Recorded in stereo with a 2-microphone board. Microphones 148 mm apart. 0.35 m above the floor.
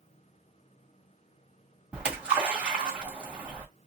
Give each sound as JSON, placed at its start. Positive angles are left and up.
{"t": 1.9, "sound": "a splash", "side_deg": -10, "distance_m": 1.8}